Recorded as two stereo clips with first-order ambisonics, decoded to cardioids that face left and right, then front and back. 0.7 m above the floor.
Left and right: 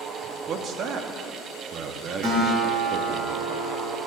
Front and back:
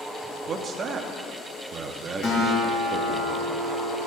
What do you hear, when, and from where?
0.5 s a man speaking: 130° right, 0.7 m
2.2 s a guitar: 50° right, 3 m